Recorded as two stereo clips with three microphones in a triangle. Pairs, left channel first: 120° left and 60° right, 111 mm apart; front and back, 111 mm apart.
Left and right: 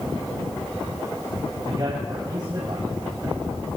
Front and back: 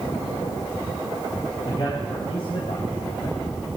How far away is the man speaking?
About 4 m.